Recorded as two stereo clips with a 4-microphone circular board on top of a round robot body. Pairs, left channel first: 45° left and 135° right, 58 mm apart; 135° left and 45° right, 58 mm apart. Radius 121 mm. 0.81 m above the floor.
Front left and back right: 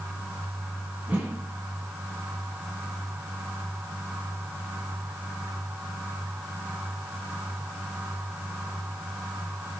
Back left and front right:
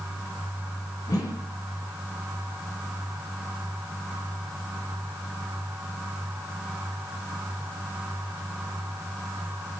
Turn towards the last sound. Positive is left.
turn(degrees=160)